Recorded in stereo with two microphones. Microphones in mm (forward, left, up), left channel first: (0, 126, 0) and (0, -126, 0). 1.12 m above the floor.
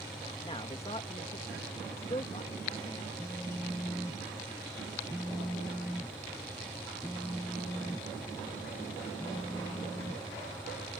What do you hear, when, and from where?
0.5 s a man speaking: 25° left (ahead or behind)
3.2 s a phone buzzing: 5° left (ahead or behind)